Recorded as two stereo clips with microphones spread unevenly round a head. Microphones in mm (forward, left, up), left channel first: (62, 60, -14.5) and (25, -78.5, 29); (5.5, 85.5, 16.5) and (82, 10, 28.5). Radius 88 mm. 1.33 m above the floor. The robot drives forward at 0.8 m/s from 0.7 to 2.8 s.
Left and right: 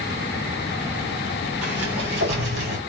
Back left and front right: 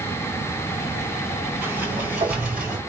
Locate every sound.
1.6 s a sliding door: 125° right, 5 m; by 2.8 s 135° right, 5.5 m